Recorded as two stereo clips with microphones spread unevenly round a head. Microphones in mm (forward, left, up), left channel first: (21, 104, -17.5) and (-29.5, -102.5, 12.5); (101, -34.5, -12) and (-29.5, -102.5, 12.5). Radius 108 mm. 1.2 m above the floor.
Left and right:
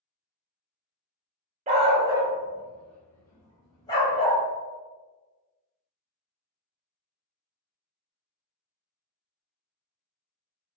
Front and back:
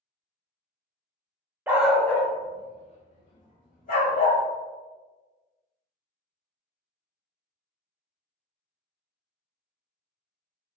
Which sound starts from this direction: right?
A dog barking, at 1.7 s.